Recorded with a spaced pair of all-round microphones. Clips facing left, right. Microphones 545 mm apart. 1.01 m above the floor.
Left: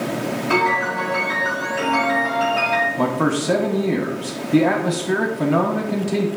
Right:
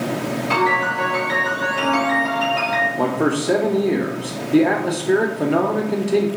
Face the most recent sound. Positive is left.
turn(degrees=30)  # may be behind; listen again after turning